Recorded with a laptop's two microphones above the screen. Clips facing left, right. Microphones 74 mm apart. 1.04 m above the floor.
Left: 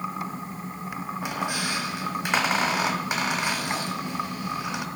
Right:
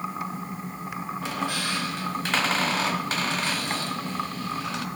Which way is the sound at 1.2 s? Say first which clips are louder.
Left 1 dB; 20° left (ahead or behind).